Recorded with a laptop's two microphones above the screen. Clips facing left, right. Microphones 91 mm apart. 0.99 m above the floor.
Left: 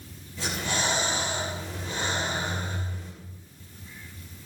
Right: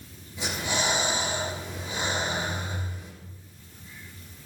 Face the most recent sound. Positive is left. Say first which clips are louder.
# even
turn(degrees=-15)  # may be behind; listen again after turning